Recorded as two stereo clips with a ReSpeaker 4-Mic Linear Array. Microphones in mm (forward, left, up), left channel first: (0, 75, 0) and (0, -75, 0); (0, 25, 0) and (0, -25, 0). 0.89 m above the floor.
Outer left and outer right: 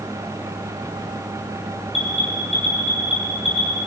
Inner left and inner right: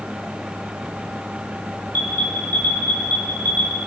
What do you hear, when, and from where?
1.9 s an alarm: 40° left (ahead or behind), 6 m